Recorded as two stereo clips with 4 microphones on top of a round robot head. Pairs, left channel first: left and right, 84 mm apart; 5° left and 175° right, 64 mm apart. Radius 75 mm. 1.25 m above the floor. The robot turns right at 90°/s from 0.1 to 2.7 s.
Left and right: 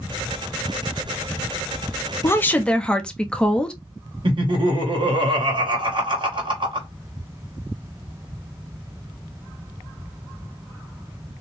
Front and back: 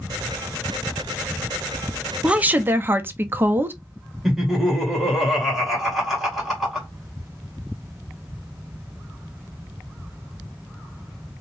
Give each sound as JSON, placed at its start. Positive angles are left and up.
{"t": 2.2, "sound": "a woman speaking", "azimuth_deg": 120, "distance_m": 0.6}
{"t": 4.2, "sound": "laughter", "azimuth_deg": -85, "distance_m": 1.5}